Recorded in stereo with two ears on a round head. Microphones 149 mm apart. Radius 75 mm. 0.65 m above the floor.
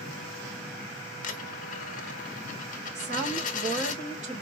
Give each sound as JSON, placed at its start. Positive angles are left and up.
{"t": 1.2, "sound": "a dropped coin", "side_deg": 50, "distance_m": 1.0}
{"t": 3.0, "sound": "a woman speaking", "side_deg": -45, "distance_m": 2.5}